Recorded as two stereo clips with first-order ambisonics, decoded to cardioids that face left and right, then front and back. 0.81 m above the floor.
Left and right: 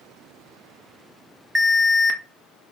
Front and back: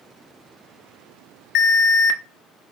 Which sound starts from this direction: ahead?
An alarm, at 1.6 s.